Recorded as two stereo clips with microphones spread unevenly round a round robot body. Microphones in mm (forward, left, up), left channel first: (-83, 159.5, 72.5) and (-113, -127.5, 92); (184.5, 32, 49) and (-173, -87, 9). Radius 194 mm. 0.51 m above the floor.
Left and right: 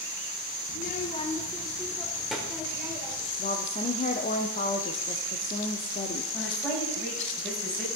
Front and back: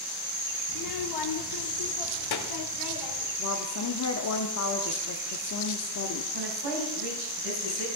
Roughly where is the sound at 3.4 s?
Ahead left.